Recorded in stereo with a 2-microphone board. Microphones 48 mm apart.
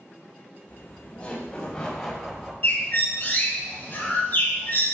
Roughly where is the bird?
Left.